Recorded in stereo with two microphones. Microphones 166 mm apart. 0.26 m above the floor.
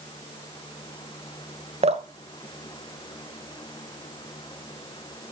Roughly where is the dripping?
Right.